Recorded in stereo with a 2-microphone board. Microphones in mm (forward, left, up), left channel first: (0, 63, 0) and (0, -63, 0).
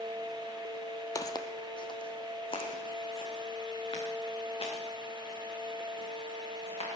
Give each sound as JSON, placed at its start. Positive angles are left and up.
{"t": 1.1, "sound": "footsteps", "side_deg": 30, "distance_m": 1.0}